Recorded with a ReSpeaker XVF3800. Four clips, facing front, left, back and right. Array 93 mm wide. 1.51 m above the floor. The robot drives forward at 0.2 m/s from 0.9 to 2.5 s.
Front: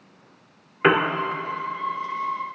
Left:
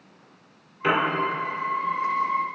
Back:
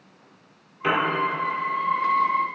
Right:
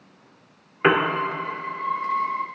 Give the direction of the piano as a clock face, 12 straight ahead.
2 o'clock.